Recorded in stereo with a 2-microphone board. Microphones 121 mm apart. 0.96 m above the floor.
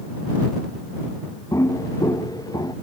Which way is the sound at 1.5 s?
25° left (ahead or behind).